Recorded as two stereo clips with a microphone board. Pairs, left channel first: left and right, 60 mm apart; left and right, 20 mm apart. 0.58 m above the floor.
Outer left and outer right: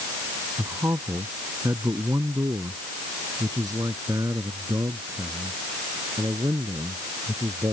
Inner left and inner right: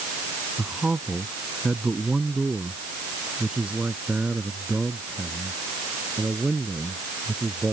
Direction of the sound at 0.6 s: 50° right (ahead or behind).